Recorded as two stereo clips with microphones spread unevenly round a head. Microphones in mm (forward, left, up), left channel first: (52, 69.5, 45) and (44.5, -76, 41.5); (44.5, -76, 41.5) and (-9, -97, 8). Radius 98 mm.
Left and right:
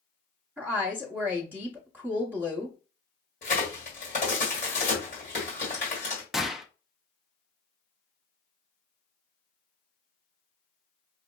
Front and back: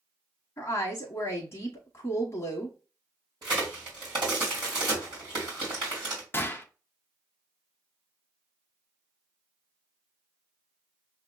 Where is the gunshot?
5° right, 0.5 m.